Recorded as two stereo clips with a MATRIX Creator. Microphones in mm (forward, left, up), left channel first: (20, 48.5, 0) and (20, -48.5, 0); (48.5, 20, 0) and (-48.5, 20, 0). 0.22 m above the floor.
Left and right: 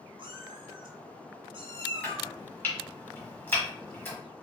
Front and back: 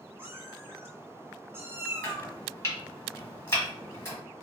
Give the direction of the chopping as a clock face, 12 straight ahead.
11 o'clock.